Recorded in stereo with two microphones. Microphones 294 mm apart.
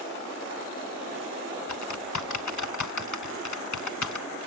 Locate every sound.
1.7 s typing on a keyboard: 70° left (ahead or behind), 0.6 m